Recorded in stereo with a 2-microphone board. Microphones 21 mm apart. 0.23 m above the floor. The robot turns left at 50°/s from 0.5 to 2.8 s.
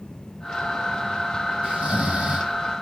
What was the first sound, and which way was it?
Snoring, 65° right.